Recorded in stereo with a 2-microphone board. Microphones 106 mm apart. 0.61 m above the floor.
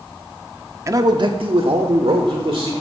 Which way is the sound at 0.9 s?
30° right (ahead or behind).